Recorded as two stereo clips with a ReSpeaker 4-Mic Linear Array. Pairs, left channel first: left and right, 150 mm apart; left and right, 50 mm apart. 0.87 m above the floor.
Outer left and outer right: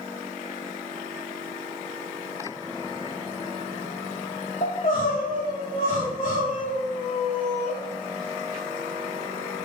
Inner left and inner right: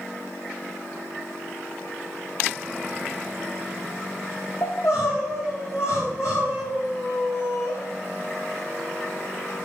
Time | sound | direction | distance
4.6 | crying | 70° left (ahead or behind) | 4 m